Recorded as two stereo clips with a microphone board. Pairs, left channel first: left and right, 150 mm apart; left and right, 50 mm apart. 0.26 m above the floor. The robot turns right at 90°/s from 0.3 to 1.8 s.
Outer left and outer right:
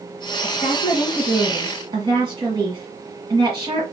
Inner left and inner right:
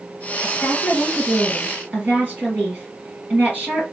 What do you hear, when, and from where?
0.4 s a woman speaking: 95° left, 2 m; by 3.8 s 140° right, 2 m